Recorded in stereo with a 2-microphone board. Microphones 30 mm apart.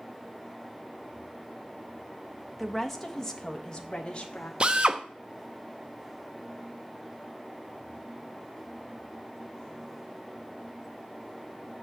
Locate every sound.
2.6 s a woman speaking: centre (ahead or behind), 1.4 m; by 4.5 s 45° left (ahead or behind), 2 m
4.6 s a drill: 40° right (ahead or behind), 0.8 m